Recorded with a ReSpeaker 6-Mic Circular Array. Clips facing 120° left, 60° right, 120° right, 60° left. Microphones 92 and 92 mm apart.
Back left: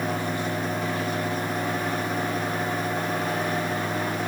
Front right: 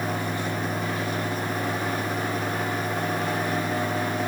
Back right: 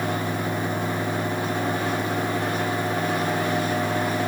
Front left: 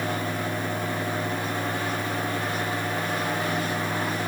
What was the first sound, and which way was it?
Only background noise.